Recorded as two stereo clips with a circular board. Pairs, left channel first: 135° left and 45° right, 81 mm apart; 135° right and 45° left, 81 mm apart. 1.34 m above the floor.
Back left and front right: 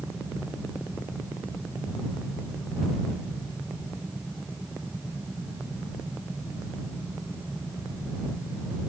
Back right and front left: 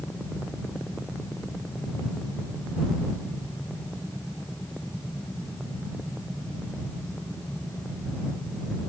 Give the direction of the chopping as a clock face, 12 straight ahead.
No chopping in this recording.